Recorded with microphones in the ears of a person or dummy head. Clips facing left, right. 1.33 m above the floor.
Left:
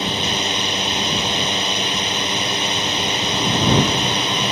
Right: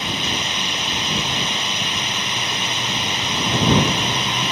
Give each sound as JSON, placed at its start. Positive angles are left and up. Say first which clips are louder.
{"t": 0.0, "sound": "a drone", "louder": "left 3 dB", "side_deg": 35}